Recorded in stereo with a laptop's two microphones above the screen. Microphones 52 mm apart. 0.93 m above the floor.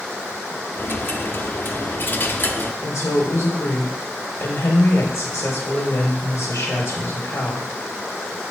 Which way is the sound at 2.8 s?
70° left (ahead or behind).